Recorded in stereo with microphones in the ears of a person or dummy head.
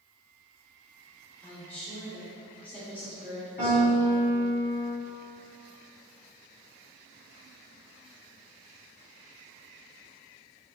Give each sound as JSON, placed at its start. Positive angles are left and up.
{"t": 1.4, "sound": "a woman speaking", "side_deg": 10, "distance_m": 0.9}
{"t": 3.6, "sound": "a piano", "side_deg": 55, "distance_m": 1.9}